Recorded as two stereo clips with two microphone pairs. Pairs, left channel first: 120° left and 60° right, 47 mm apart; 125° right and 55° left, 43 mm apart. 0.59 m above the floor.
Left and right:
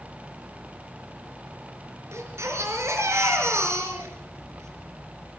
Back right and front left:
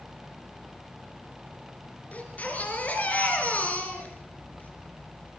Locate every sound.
2.1 s a baby crying: 70° right, 4 m